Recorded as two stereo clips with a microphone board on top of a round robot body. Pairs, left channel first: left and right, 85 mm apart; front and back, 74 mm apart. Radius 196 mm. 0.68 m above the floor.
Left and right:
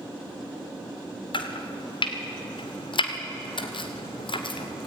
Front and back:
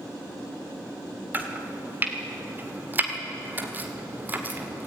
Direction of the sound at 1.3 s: 110° left.